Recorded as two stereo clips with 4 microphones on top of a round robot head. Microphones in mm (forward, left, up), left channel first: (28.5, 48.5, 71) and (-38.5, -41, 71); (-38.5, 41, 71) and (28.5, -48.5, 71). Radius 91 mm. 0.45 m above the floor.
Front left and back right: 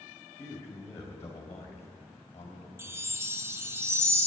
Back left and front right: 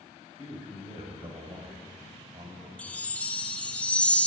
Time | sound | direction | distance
0.3 | a man speaking | 10° right | 2 m
2.8 | a chime | 170° right | 0.8 m